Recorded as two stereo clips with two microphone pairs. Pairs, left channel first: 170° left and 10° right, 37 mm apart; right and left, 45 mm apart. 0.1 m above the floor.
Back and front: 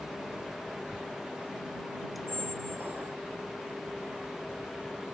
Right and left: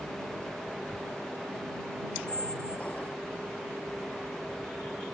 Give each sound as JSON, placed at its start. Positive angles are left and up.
{"t": 2.3, "sound": "a squeak", "azimuth_deg": -30}